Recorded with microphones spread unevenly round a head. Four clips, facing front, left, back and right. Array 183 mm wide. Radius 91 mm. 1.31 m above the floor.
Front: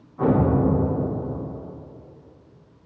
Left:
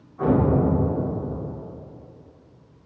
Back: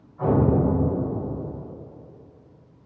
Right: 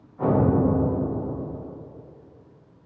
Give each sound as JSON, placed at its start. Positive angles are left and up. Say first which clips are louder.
{"t": 0.2, "sound": "an explosion", "louder": "left 1 dB, front 1 dB", "azimuth_deg": 10, "distance_m": 1.1}